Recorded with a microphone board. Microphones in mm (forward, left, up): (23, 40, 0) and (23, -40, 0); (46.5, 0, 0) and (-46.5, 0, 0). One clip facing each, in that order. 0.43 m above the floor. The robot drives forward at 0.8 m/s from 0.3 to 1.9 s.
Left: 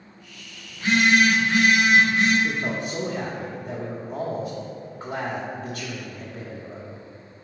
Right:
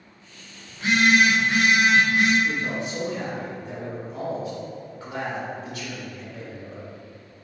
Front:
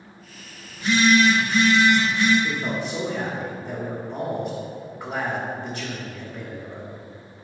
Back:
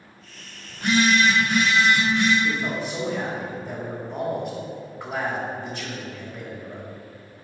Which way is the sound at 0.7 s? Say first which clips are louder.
Even, front 2 dB; 155° right.